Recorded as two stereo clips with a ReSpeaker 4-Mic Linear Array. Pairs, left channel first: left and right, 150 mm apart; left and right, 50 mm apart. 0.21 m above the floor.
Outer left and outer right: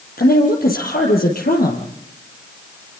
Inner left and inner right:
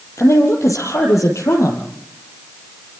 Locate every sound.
0.2 s a woman speaking: 80° left, 5 m